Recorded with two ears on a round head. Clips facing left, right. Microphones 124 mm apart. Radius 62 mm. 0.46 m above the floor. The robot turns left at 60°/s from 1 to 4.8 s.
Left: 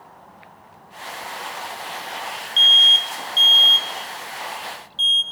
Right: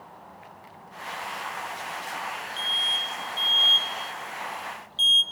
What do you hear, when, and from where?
2.6 s an alarm: 35° left (ahead or behind), 0.8 m; by 5.2 s 15° right (ahead or behind), 0.8 m